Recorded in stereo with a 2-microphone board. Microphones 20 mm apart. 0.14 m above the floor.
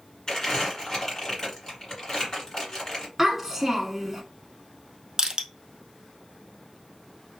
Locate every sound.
0.3 s crumpling: 30° left (ahead or behind), 1.8 m
3.2 s a child speaking: 20° right (ahead or behind), 0.7 m
5.2 s crushing: 40° right (ahead or behind), 0.6 m